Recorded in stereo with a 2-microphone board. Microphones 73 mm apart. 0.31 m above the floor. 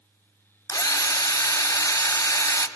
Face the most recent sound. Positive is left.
turn(degrees=60)  # may be behind; listen again after turning